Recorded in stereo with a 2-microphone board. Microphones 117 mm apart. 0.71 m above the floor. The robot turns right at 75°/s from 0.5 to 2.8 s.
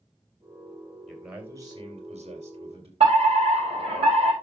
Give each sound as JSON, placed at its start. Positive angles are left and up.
{"t": 1.1, "sound": "a man speaking", "azimuth_deg": 170, "distance_m": 3.0}
{"t": 3.0, "sound": "a fire alarm", "side_deg": -60, "distance_m": 5.5}